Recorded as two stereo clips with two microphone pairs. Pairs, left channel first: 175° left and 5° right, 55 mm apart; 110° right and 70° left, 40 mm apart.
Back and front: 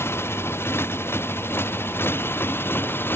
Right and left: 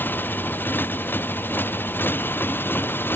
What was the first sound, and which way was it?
A motorcycle, 145° right.